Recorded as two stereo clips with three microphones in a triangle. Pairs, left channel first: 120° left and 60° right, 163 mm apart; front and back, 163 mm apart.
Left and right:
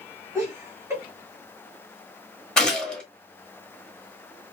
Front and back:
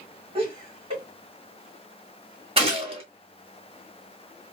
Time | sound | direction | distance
0.3 | laughter | 130° right | 2 m
2.6 | a gunshot | 155° right | 1.6 m